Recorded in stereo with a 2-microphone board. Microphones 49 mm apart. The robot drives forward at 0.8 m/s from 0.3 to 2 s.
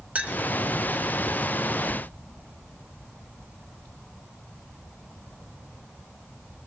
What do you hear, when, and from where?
0.1 s a clink: 30° right (ahead or behind), 0.8 m; by 0.4 s 25° right (ahead or behind), 0.9 m